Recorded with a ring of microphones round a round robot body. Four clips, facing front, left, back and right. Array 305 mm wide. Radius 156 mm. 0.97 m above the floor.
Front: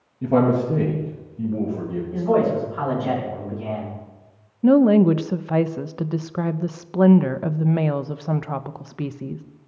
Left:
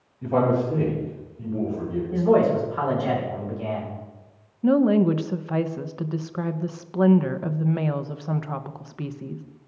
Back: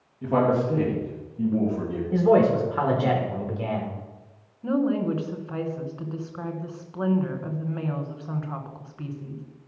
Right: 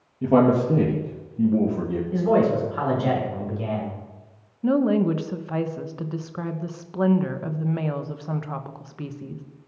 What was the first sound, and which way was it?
A man speaking, 50° right.